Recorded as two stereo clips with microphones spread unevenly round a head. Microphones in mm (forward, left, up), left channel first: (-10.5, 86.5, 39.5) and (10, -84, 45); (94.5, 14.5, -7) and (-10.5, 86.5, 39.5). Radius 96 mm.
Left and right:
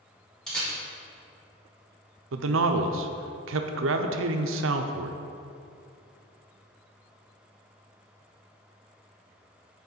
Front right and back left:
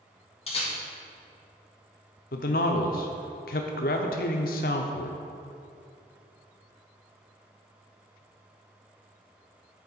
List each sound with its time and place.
0.5 s a camera shutter: 10° left, 2.5 m
2.3 s a man speaking: 70° right, 0.5 m